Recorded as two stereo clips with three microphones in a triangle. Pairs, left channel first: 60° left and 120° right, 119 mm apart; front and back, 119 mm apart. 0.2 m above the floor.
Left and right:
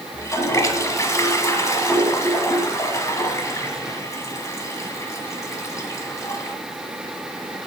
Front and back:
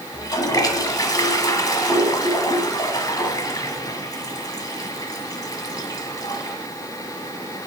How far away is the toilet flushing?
About 1.5 m.